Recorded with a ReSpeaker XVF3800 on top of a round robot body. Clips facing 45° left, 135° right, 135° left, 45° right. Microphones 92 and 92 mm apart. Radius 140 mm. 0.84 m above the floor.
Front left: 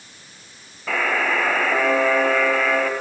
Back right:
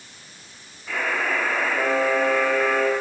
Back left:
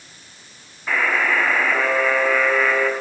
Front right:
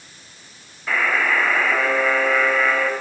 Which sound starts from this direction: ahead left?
A buzzer, at 0.9 s.